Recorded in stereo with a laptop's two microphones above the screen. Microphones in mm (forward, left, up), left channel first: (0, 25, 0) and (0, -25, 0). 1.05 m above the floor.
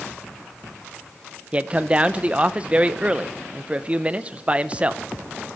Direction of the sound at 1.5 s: 25° right (ahead or behind).